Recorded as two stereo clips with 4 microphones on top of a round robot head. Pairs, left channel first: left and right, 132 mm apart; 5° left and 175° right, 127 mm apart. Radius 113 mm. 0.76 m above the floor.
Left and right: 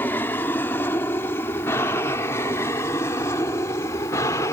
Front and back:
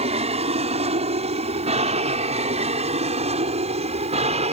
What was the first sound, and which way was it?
An aircraft, 165° left.